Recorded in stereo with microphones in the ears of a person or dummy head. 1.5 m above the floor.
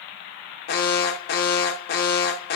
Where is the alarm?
65° left (ahead or behind), 0.6 m.